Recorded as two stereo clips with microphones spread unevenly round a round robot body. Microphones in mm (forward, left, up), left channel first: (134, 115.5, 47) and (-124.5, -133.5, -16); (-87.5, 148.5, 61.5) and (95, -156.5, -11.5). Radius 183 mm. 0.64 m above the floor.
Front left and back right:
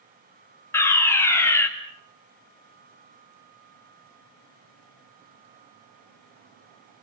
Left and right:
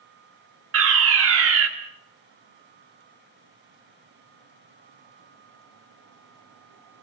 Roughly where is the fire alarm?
Ahead right.